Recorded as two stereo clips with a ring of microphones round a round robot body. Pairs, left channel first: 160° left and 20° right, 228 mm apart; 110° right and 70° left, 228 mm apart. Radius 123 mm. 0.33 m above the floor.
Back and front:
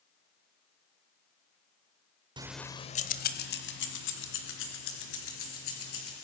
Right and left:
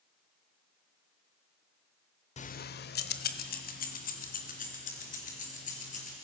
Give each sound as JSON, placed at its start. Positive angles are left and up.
{"t": 2.4, "sound": "keys jangling", "azimuth_deg": -80, "distance_m": 0.7}